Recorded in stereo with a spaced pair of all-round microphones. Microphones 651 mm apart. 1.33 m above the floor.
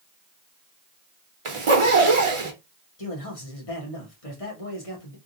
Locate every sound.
1.4 s a zipper: 50° right (ahead or behind), 0.9 m
3.0 s a man speaking: 55° left (ahead or behind), 1.4 m